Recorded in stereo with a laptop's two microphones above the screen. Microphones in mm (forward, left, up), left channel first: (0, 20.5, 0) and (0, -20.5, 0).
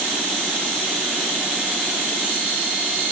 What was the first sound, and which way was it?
Only background noise.